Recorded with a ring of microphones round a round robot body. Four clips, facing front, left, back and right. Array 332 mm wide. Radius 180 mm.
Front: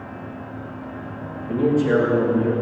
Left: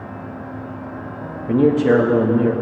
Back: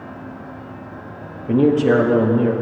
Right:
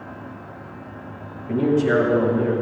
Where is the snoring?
No snoring in this recording.